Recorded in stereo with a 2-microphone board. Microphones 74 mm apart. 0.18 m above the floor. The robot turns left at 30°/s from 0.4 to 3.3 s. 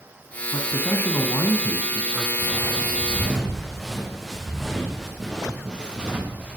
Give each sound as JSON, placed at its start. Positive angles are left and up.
{"t": 0.5, "sound": "a man speaking", "azimuth_deg": 75, "distance_m": 1.4}
{"t": 2.4, "sound": "footsteps", "side_deg": 40, "distance_m": 4.5}